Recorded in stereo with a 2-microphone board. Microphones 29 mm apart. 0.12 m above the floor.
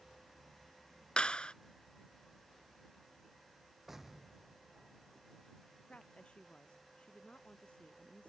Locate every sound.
1.2 s a clap: 35° left (ahead or behind)
3.9 s an explosion: 15° right (ahead or behind)
5.9 s a woman speaking: 40° left (ahead or behind)